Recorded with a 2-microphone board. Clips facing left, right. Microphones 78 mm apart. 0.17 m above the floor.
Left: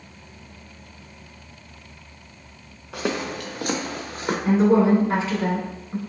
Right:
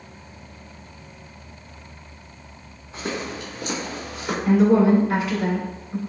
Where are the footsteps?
80° left, 1.0 m; by 4.3 s 40° left (ahead or behind), 1.4 m.